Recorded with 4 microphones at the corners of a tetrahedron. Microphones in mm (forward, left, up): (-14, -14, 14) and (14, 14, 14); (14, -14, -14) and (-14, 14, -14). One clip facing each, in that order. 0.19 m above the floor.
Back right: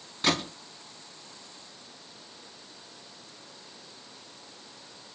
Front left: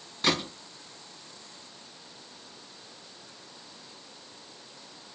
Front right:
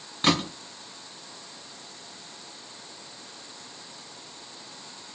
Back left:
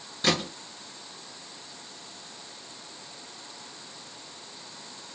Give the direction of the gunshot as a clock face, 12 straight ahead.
2 o'clock.